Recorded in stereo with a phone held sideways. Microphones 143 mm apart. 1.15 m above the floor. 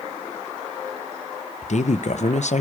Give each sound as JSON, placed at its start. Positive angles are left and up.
{"t": 1.6, "sound": "a woman speaking", "side_deg": 60, "distance_m": 0.7}